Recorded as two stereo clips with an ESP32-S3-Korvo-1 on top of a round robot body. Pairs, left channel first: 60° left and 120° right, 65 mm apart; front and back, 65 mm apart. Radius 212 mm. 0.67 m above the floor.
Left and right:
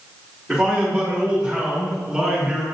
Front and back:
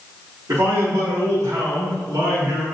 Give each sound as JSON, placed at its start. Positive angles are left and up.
{"t": 0.5, "sound": "a man speaking", "azimuth_deg": 155, "distance_m": 2.5}